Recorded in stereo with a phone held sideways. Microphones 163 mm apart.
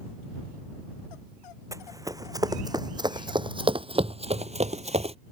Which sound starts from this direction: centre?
Running footsteps, at 1.7 s.